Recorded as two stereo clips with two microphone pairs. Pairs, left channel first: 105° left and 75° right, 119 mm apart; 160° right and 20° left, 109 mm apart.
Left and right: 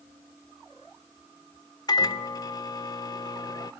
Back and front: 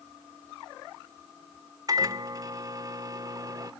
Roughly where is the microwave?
Ahead left.